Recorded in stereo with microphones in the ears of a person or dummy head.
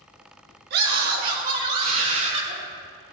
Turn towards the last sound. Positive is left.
turn(degrees=-40)  # may be behind; listen again after turning